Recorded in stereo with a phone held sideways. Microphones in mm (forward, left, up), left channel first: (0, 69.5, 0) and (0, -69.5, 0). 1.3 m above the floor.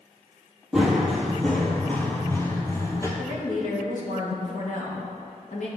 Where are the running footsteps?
5° right (ahead or behind), 1.6 m; by 3.1 s 20° left (ahead or behind), 1.6 m.